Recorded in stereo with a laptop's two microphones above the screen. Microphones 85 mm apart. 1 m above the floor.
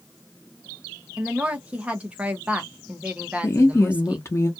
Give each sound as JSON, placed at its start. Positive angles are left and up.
{"t": 1.2, "sound": "a woman speaking", "side_deg": -15, "distance_m": 0.7}
{"t": 3.4, "sound": "a woman speaking", "side_deg": 35, "distance_m": 0.7}